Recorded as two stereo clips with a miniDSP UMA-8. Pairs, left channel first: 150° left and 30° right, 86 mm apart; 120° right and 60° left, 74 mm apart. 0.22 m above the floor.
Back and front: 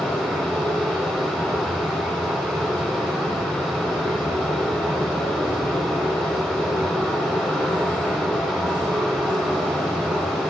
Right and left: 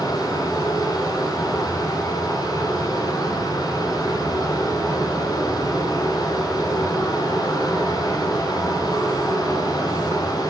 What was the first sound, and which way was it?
Running water, 120° right.